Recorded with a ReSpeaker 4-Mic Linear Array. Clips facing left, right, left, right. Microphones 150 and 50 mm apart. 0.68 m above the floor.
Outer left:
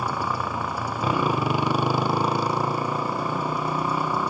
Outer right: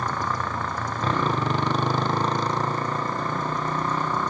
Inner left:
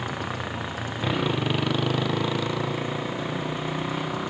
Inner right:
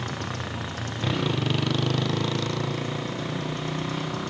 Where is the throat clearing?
No throat clearing in this recording.